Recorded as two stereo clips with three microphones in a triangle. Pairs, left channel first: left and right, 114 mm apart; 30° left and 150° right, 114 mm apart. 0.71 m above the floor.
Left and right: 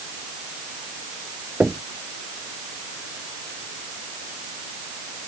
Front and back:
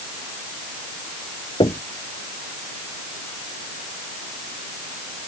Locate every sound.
1.6 s knocking: 10° right